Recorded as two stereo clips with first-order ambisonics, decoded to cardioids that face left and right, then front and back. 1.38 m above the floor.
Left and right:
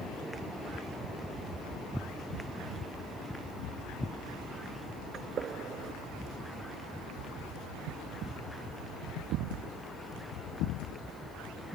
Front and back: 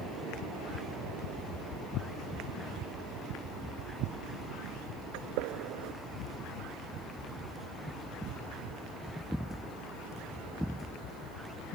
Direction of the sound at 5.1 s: 155° right.